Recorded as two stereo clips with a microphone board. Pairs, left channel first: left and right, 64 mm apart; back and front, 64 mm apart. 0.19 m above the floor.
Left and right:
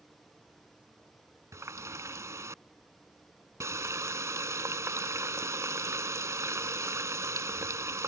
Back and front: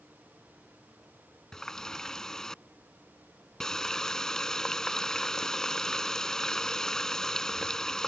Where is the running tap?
100° right.